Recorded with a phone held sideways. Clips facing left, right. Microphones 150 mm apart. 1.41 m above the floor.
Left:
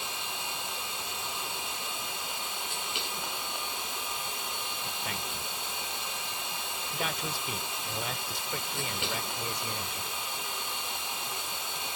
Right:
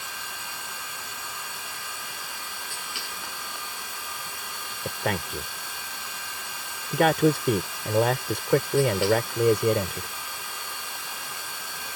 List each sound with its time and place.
0.0 s a machine running: 20° left (ahead or behind)
4.8 s a man speaking: 70° right (ahead or behind)